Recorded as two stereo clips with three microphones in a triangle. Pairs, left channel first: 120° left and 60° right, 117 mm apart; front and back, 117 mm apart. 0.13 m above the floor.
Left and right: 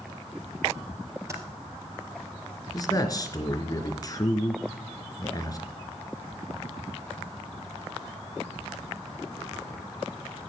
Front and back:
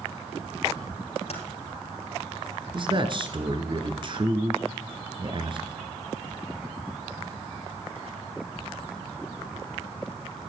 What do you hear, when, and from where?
1.3 s typing on a keyboard: 5° left, 3.5 m
2.7 s a man speaking: 165° left, 2 m